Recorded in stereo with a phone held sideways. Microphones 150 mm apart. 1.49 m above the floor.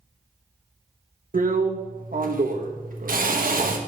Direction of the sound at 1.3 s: 65° right (ahead or behind).